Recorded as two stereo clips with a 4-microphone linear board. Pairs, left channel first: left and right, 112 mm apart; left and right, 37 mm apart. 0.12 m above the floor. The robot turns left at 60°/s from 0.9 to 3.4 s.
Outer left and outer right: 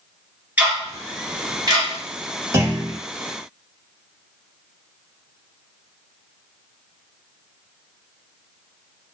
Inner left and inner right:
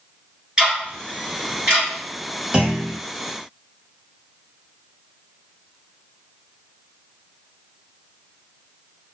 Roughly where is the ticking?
Centre.